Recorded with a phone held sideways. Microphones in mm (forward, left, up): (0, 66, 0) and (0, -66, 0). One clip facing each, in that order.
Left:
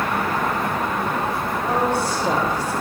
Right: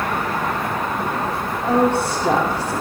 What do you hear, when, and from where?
1.6 s a woman speaking: 65° right (ahead or behind), 2.5 m